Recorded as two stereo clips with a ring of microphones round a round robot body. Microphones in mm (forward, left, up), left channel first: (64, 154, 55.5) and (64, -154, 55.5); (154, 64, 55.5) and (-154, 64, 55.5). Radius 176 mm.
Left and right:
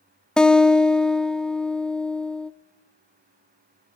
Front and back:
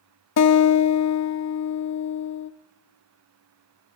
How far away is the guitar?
About 1.0 m.